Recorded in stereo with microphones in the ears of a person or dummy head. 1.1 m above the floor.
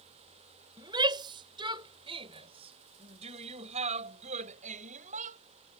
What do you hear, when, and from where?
0.8 s a shout: 25° right (ahead or behind); by 5.4 s 45° right (ahead or behind)